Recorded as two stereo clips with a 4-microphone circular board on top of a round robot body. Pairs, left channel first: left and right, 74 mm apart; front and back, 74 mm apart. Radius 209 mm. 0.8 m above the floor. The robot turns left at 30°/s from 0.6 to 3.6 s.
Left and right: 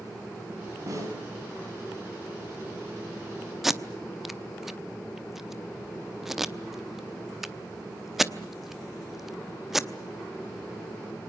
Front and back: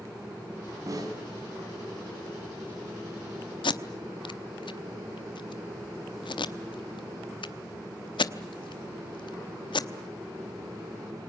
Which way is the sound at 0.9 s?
135° right.